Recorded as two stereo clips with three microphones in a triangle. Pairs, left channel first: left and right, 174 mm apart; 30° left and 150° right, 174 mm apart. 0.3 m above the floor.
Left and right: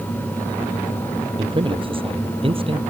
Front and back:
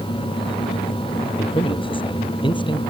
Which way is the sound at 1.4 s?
30° right.